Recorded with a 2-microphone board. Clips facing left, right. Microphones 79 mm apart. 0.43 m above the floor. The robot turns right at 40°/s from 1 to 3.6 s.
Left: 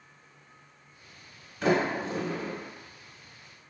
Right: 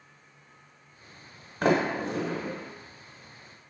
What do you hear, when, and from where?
1.6 s a sliding door: 55° right (ahead or behind), 0.6 m; by 2.5 s 85° right, 0.6 m